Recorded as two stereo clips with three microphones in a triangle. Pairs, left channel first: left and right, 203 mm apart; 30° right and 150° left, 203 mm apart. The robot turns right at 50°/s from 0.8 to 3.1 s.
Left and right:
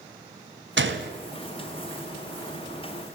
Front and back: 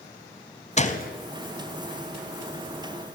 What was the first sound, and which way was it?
A gunshot, 85° right.